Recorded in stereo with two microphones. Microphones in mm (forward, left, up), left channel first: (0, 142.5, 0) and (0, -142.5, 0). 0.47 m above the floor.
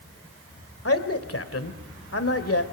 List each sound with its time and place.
0.8 s a man speaking: 55° left (ahead or behind), 1.9 m